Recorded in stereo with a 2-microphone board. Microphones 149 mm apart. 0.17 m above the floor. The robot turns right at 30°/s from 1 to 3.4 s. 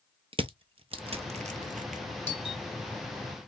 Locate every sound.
0.3 s crushing: 40° right (ahead or behind), 0.8 m; by 2.0 s 70° right (ahead or behind), 0.8 m
2.3 s a doorbell: 40° left (ahead or behind), 2.5 m; by 2.6 s 35° left (ahead or behind), 2.5 m